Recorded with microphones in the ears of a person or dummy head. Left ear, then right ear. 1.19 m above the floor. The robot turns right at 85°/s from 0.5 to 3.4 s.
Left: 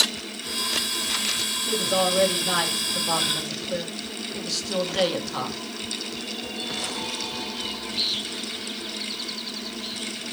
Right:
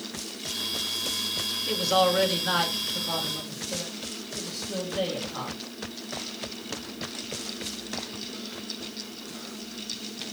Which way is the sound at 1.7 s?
80° right.